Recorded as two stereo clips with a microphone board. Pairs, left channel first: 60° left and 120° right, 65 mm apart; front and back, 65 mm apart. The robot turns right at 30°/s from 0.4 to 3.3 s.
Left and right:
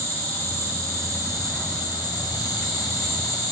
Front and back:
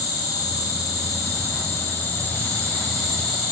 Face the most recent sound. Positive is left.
turn(degrees=90)